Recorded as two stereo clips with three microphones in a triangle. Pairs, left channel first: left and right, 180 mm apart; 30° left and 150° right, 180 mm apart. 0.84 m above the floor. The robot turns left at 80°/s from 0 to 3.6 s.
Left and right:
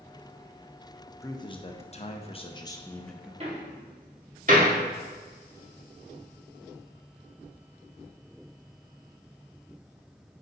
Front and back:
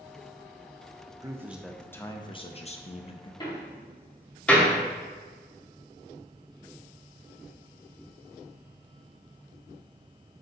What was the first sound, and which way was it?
A man speaking, 155° left.